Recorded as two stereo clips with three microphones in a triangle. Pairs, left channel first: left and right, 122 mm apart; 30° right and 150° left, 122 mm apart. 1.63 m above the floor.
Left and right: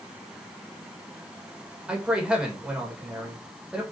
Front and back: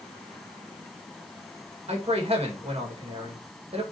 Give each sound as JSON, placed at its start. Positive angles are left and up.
{"t": 1.9, "sound": "a man speaking", "azimuth_deg": -170, "distance_m": 2.5}